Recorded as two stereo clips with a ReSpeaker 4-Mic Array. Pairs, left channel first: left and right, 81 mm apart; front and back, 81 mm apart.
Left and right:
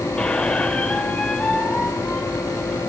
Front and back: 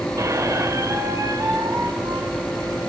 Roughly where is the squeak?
Behind.